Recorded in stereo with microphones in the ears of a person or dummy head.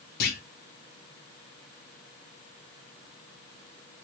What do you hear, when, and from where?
0.2 s a clunk: 45° left (ahead or behind), 0.7 m